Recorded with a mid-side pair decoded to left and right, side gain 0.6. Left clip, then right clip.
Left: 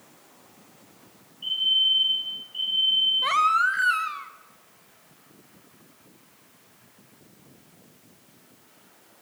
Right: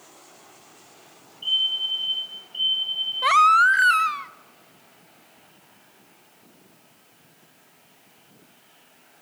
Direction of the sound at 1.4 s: 20° right.